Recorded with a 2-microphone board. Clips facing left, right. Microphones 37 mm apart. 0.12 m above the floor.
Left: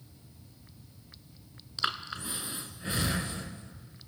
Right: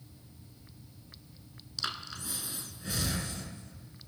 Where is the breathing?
30° left (ahead or behind), 0.8 m.